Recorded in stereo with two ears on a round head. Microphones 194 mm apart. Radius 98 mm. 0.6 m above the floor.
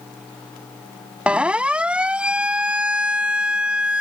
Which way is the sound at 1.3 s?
5° right (ahead or behind).